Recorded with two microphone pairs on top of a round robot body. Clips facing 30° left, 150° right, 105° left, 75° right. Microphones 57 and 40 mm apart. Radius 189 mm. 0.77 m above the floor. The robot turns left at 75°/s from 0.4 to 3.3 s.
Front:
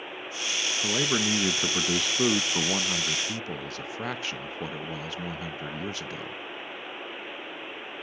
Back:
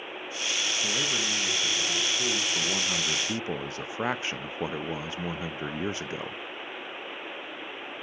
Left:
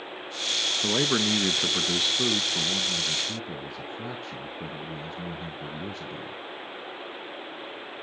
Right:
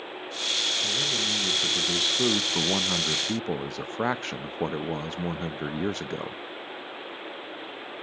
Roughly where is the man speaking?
Left.